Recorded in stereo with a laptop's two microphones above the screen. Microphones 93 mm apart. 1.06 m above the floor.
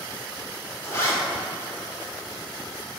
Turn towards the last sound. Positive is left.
turn(degrees=30)  # may be behind; listen again after turning